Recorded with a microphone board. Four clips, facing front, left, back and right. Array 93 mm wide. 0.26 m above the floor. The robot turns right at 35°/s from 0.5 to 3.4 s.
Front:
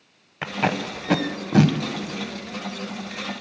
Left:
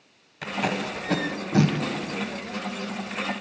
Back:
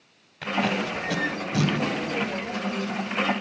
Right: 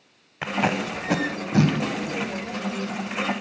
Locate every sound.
0.4 s tape being pulled: 40° right, 0.5 m; by 1.8 s 5° left, 0.5 m